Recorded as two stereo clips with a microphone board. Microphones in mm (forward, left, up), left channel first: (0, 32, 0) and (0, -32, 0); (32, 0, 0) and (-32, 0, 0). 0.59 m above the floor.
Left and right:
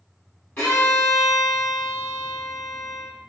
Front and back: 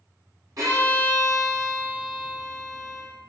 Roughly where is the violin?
Behind left.